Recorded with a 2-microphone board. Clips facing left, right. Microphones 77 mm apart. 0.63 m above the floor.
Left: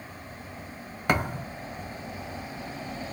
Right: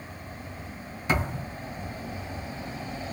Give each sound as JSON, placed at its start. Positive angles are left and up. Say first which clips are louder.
{"t": 1.1, "sound": "a thud", "louder": "left 2 dB", "side_deg": 60, "distance_m": 1.3}